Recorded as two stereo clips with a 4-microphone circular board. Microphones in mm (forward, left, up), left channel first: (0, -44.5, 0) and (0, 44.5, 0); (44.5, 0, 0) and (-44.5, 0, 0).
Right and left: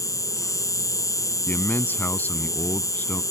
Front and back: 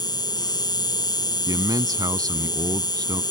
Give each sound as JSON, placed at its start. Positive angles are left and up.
{"t": 0.0, "sound": "an insect", "azimuth_deg": -40}
{"t": 1.5, "sound": "a man speaking", "azimuth_deg": -155}